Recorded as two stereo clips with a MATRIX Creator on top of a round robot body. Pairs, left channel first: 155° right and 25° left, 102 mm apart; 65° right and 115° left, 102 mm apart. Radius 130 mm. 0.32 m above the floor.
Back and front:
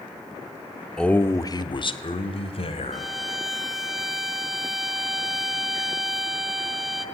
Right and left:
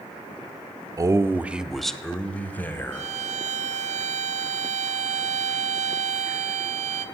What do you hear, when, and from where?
1.0 s a man speaking: 125° left, 1.2 m; by 3.1 s 135° right, 3 m
2.9 s a violin: 110° left, 1.4 m